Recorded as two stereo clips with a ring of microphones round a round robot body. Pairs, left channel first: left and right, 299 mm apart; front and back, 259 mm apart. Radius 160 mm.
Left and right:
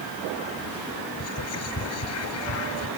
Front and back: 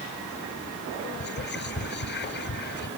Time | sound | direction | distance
1.2 | whispering | 50° left | ?